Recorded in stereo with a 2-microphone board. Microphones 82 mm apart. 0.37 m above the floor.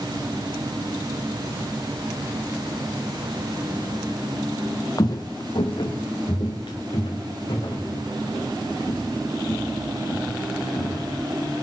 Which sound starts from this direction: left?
Footsteps, at 5.0 s.